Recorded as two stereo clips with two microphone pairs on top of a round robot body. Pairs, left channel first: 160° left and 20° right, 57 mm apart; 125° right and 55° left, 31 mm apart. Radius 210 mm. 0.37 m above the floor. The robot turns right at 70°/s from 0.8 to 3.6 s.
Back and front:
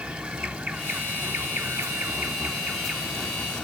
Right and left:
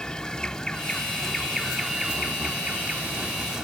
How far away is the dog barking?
No dog barking in this recording.